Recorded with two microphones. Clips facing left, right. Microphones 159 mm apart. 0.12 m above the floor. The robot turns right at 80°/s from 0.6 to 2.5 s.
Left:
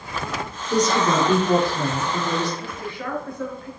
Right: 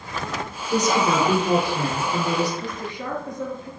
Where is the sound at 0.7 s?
150° left, 1.8 m; by 2.5 s 65° right, 1.8 m.